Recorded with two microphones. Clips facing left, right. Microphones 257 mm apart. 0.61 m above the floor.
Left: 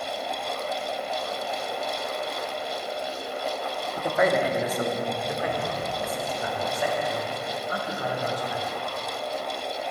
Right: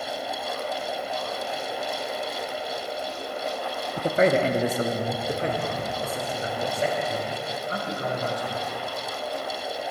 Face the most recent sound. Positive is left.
turn(degrees=-30)  # may be behind; listen again after turning